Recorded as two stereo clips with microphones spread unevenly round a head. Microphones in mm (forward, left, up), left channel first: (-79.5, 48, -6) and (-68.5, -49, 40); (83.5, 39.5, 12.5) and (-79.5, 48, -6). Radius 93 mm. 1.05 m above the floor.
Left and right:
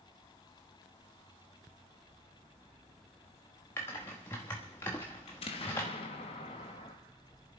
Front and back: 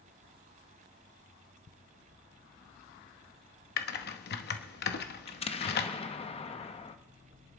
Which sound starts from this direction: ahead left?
An explosion, at 5.3 s.